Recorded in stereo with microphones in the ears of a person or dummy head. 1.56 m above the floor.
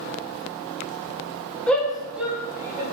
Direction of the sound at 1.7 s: 10° left (ahead or behind).